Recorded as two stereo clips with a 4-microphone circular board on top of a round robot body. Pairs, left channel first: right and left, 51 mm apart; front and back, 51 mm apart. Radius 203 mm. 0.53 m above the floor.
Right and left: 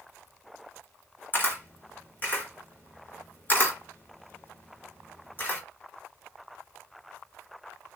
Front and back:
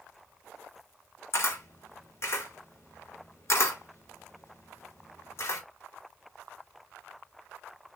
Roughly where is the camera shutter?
Ahead right.